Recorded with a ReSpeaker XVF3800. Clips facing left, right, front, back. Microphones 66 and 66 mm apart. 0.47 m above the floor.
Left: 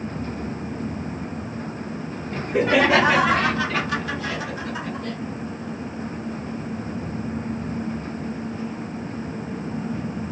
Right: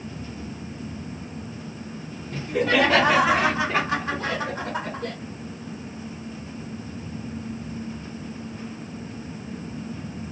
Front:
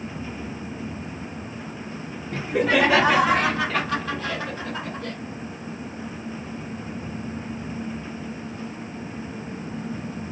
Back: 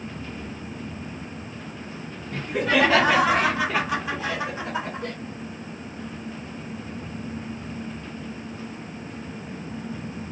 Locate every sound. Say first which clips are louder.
2.3 s laughter: left 2 dB, front 2 dB; 65° left, 0.9 m; by 5.2 s 110° right, 1.5 m